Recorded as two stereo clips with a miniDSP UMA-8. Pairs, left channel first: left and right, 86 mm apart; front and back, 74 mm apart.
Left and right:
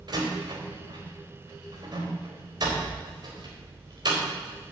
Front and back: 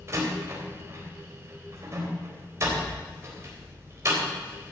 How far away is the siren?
No siren in this recording.